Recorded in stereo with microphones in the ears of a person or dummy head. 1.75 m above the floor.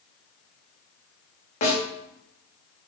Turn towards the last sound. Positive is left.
turn(degrees=40)  # may be behind; listen again after turning